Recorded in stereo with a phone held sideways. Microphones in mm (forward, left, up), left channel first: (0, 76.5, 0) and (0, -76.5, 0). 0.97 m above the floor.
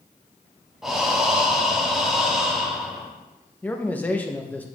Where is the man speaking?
10° left (ahead or behind), 0.7 m.